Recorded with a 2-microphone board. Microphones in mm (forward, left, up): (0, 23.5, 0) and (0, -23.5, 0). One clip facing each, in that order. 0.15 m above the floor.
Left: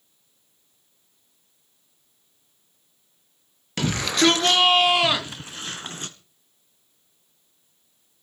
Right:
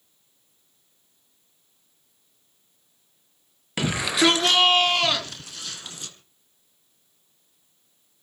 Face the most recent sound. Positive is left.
turn(degrees=50)  # may be behind; listen again after turning